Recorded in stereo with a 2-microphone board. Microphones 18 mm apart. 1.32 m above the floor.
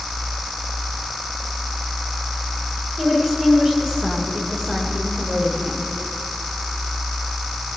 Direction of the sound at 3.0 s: 30° right (ahead or behind).